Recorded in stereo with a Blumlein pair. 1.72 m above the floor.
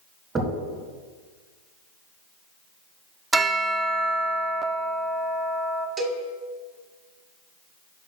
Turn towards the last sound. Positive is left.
turn(degrees=-20)